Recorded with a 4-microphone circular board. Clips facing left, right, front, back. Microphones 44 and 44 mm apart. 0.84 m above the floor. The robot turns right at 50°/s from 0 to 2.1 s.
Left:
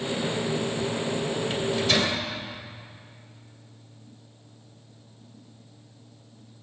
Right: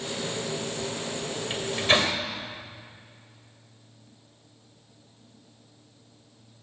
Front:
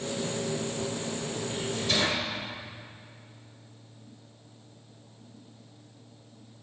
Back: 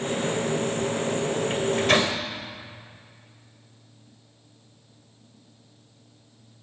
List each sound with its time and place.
1.5 s a microwave: 165° right, 3 m; by 2.1 s 135° right, 3 m